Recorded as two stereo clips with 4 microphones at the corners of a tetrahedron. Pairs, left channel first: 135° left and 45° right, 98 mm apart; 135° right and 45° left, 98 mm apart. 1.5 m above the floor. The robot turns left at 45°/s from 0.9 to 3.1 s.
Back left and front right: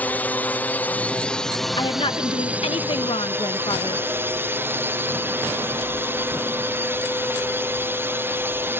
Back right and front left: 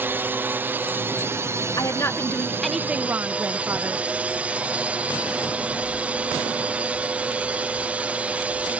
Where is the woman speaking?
175° left; by 4.0 s 115° left.